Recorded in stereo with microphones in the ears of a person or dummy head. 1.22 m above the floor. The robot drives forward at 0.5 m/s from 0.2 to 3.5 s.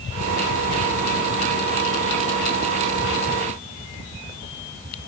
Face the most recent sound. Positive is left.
No sound to turn to.